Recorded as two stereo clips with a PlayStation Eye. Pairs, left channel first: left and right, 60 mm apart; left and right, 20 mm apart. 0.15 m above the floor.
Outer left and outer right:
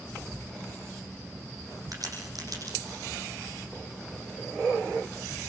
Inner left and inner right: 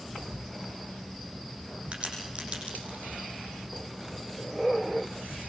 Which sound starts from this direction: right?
A crack, at 1.9 s.